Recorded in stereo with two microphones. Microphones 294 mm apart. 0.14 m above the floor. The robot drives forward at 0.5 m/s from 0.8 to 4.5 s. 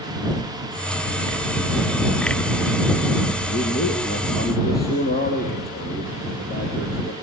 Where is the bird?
I don't hear a bird.